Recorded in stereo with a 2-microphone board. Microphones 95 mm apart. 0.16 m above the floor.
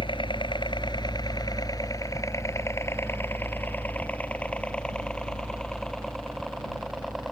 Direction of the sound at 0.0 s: 60° left (ahead or behind).